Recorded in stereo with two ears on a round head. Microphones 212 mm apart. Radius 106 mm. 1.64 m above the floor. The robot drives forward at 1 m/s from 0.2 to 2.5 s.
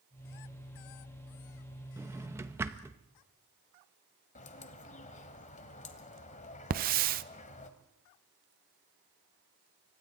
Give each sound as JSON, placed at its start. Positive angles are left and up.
{"t": 2.0, "sound": "a drawer", "side_deg": -10, "distance_m": 0.9}
{"t": 4.3, "sound": "a bird", "side_deg": 30, "distance_m": 1.6}
{"t": 6.7, "sound": "a hiss", "side_deg": -40, "distance_m": 0.7}